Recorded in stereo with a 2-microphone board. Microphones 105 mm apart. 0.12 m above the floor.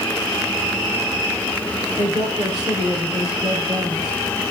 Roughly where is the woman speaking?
Right.